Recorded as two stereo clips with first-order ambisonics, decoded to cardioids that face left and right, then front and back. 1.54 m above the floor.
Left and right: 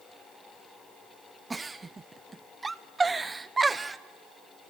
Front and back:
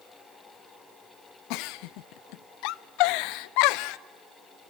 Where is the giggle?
10° right, 0.5 m.